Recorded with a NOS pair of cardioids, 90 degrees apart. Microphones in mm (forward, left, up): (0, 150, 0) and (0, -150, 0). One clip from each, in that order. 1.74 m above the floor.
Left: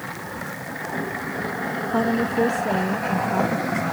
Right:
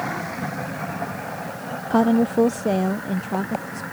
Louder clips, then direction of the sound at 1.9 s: Right 4 dB; 30° right.